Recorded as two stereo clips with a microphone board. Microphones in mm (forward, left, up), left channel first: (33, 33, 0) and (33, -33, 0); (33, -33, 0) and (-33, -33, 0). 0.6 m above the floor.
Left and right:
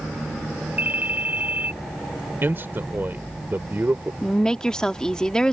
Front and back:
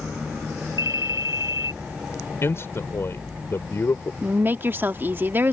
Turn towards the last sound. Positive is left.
turn(degrees=160)